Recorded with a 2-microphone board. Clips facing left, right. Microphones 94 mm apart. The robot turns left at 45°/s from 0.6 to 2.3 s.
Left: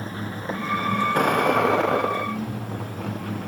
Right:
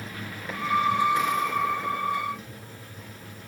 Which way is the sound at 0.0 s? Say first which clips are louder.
Left 6 dB; 150° left.